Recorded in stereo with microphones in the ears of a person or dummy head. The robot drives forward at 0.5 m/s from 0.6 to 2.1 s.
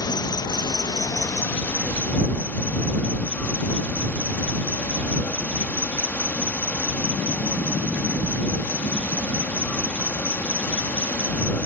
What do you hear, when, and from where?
0.0 s an insect: 15° left (ahead or behind); by 11.7 s 10° left (ahead or behind)